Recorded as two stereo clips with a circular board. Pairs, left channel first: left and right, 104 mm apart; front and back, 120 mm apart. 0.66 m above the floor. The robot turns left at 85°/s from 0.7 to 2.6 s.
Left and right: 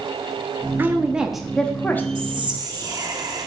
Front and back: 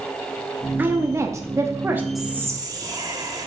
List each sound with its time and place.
0.8 s a woman speaking: 130° right, 0.8 m; by 2.0 s 125° left, 0.8 m
2.1 s whispering: 90° right, 1.4 m; by 3.5 s 130° right, 1.4 m